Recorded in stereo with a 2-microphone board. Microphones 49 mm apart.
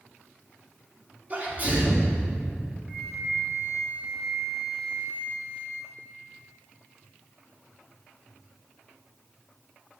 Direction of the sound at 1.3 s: 35° right (ahead or behind).